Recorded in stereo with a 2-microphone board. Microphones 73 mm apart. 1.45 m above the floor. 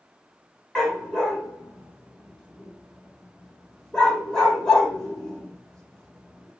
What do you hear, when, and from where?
0.8 s a dog barking: 10° left (ahead or behind), 1.4 m